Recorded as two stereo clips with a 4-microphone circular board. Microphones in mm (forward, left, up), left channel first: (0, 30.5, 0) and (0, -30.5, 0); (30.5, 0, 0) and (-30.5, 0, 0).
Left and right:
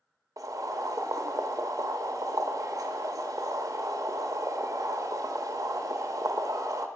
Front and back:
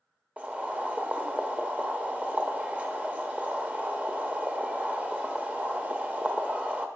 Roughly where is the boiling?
Right.